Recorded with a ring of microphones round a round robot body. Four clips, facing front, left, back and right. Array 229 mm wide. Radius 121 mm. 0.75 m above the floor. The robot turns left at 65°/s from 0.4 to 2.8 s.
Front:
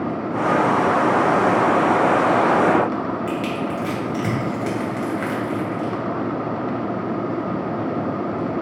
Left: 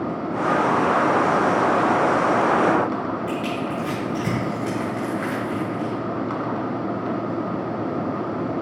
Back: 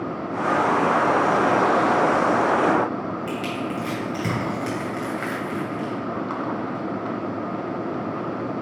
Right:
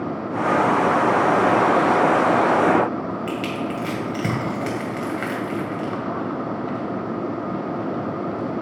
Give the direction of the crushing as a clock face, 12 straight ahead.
3 o'clock.